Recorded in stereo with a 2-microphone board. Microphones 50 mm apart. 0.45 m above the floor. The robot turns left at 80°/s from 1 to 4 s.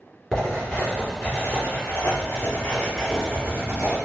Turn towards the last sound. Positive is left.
turn(degrees=-80)